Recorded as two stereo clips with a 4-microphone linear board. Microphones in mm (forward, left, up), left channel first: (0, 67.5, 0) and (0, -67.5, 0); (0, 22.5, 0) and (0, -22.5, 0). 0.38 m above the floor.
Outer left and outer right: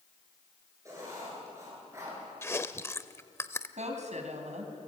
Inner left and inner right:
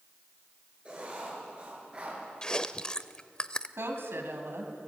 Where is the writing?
25° right (ahead or behind), 8 m.